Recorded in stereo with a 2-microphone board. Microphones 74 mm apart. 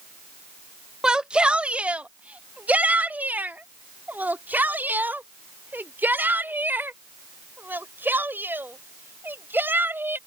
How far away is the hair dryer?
I don't hear a hair dryer.